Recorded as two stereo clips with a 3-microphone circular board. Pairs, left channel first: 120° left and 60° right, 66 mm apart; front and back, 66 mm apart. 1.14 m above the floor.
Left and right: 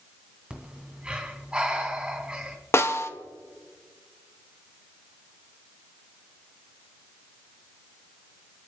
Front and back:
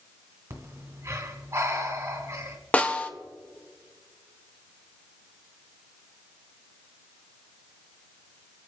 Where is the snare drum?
70° left, 0.8 m.